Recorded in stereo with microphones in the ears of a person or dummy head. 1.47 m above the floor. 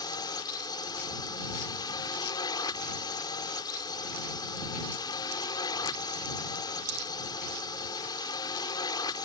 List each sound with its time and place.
0.0 s a drone: 20° left (ahead or behind)